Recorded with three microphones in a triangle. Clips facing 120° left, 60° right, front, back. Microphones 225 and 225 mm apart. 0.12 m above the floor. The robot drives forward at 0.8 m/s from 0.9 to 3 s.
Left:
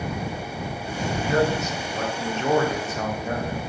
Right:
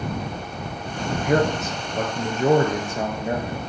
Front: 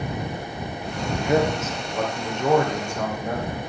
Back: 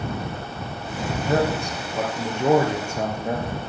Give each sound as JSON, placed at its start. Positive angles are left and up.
{"t": 1.1, "sound": "a man speaking", "azimuth_deg": -70, "distance_m": 1.9}